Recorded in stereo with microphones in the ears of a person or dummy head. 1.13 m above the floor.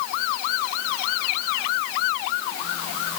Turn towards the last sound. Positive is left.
No sound to turn to.